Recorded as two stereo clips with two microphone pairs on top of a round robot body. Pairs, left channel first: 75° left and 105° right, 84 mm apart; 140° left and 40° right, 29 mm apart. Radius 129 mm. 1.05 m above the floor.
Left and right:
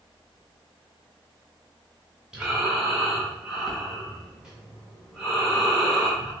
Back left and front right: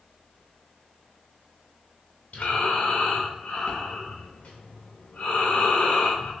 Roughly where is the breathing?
Behind.